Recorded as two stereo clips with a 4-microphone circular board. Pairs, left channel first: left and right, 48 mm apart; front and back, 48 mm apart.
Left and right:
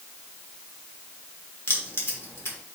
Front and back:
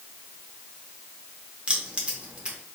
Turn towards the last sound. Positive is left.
turn(degrees=115)